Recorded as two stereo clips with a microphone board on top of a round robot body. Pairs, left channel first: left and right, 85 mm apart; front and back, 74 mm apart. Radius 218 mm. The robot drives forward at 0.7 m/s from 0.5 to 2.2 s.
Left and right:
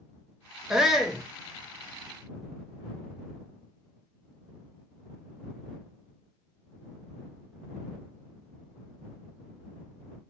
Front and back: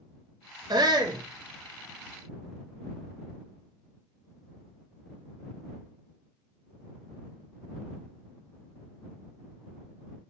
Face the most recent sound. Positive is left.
turn(degrees=180)